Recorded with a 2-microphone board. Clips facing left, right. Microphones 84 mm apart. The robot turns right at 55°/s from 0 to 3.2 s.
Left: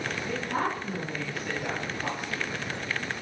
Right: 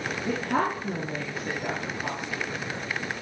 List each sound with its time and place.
0.3 s a woman speaking: 70° right (ahead or behind), 4 m; by 2.5 s 25° left (ahead or behind), 4 m